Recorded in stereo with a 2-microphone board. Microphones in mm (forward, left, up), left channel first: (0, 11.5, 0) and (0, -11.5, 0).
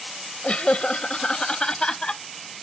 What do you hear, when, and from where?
0.4 s laughter: 55° left (ahead or behind); by 2.2 s 35° left (ahead or behind)